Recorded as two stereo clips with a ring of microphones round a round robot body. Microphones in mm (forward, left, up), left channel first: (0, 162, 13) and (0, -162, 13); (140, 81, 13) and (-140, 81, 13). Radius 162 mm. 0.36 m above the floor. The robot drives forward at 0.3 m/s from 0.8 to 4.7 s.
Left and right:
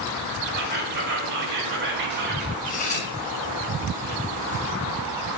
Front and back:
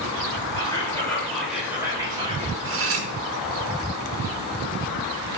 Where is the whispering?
70° right, 0.9 m; by 2.5 s 125° right, 1.0 m.